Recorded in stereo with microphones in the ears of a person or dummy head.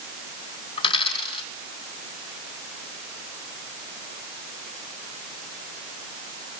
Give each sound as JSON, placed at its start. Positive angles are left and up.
{"t": 0.8, "sound": "a dropped coin", "side_deg": 30, "distance_m": 3.0}